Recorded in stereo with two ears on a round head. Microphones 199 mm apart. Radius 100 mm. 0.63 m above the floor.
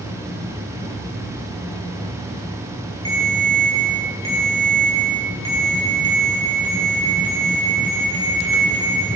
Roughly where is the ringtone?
Right.